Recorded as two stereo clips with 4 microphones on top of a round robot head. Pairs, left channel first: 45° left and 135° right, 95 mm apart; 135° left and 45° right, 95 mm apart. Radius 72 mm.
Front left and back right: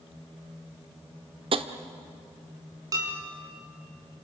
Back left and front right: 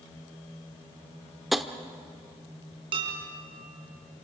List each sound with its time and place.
1.5 s tapping: 135° right, 1.1 m
2.9 s dishes clattering: 80° right, 4.5 m